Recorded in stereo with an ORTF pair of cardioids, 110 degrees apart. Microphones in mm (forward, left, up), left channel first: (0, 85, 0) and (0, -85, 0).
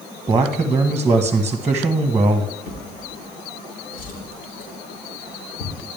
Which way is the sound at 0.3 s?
10° right.